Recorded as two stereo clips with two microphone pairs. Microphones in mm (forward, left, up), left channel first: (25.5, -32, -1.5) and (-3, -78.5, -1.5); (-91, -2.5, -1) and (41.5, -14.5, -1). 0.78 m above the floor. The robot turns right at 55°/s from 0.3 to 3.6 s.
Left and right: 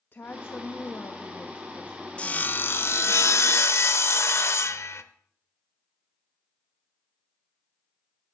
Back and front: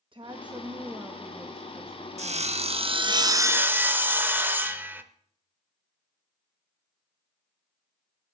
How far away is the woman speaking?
About 0.6 m.